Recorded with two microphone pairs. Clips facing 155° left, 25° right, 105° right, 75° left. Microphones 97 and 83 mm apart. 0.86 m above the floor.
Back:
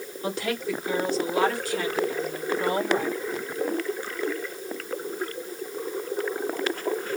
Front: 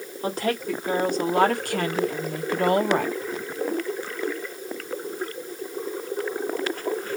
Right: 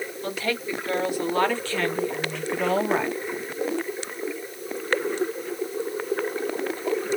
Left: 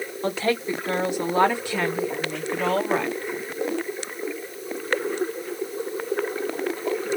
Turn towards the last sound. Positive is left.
turn(degrees=-30)